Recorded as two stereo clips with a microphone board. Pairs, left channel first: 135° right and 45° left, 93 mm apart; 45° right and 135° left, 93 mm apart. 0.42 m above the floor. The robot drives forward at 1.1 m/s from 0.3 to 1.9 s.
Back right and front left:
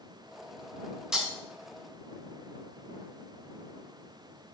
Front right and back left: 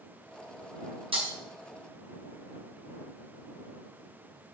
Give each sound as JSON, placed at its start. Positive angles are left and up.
{"t": 1.1, "sound": "breaking glass", "azimuth_deg": 125, "distance_m": 2.5}